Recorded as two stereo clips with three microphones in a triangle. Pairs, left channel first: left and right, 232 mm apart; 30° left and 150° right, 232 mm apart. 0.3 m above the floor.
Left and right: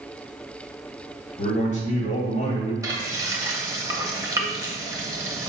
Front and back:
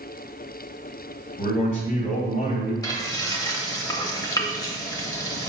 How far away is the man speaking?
About 1.5 m.